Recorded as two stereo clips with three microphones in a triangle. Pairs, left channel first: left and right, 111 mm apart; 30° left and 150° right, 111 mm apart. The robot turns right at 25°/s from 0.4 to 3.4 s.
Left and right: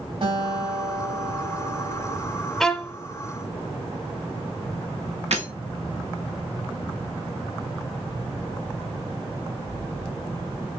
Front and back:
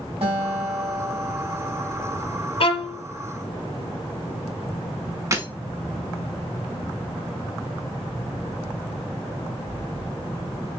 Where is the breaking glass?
85° right, 1.4 m.